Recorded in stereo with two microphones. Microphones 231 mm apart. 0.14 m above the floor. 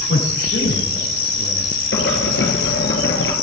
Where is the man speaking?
60° left (ahead or behind), 9 m; by 1.7 s 65° left (ahead or behind), 9 m.